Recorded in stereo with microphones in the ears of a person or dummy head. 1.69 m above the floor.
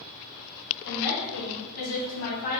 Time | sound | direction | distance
0.8 | a woman speaking | 75° left (ahead or behind) | 1.9 m